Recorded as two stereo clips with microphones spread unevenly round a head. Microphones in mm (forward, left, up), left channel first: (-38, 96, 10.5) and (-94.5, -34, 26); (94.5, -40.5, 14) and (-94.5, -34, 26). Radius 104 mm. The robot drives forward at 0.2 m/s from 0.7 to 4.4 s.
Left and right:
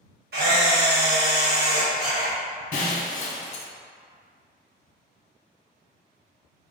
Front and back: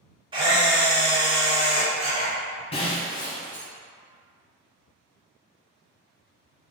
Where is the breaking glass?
60° left, 0.6 m; by 3.7 s 85° left, 0.6 m.